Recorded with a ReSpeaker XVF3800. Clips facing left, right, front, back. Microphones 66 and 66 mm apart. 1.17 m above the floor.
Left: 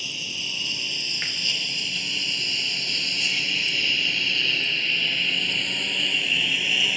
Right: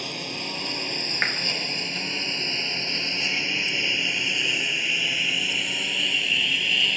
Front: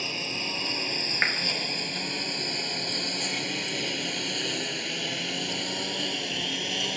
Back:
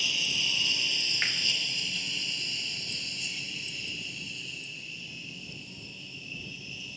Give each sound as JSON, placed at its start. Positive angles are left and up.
{"t": 0.0, "sound": "a lawn mower", "azimuth_deg": -50}
{"t": 1.2, "sound": "a clap", "azimuth_deg": -50}